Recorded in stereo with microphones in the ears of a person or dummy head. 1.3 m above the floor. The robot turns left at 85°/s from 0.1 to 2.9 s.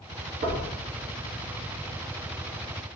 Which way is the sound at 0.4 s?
35° right (ahead or behind).